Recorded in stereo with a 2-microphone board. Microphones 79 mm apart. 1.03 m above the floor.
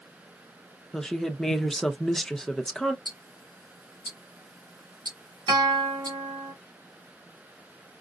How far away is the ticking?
About 3.5 m.